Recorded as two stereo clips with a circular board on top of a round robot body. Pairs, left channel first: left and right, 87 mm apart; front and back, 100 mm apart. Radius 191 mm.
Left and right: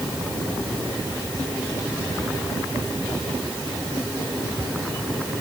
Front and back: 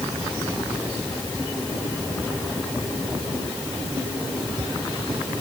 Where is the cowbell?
I don't hear a cowbell.